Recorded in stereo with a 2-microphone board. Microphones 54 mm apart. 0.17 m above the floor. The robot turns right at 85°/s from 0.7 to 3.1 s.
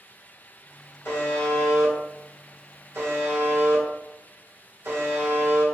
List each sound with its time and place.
1.1 s a buzzer: 120° left, 1.2 m; by 5.7 s 65° right, 1.2 m